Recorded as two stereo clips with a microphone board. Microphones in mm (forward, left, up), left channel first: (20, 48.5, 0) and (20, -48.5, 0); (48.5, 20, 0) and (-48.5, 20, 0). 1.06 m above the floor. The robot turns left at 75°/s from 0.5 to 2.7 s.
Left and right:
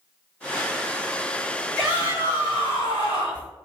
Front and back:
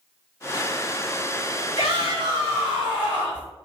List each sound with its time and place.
1.8 s a shout: 170° left, 1.4 m; by 3.5 s 100° left, 1.4 m